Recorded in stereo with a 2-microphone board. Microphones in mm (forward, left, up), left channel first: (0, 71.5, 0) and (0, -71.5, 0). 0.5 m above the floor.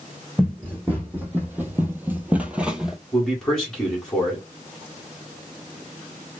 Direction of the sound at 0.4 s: 10° right (ahead or behind).